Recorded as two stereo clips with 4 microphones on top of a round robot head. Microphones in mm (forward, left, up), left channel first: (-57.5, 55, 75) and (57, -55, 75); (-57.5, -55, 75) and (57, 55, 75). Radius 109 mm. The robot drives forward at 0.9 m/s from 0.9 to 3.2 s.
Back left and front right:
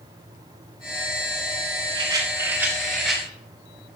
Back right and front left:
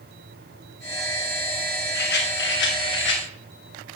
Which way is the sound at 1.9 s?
105° right.